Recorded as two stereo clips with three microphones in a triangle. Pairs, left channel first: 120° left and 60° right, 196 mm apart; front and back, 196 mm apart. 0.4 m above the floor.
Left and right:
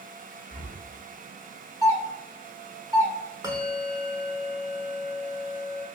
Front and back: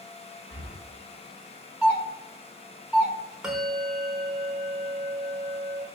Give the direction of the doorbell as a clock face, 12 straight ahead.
4 o'clock.